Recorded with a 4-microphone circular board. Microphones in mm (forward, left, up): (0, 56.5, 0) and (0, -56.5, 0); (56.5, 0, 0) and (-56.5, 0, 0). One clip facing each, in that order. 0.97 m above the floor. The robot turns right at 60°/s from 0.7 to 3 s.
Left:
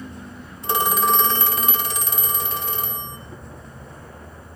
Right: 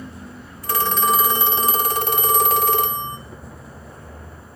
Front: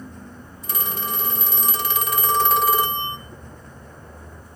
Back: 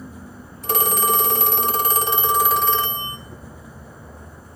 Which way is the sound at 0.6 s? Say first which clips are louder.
Even, back 9 dB; 155° left.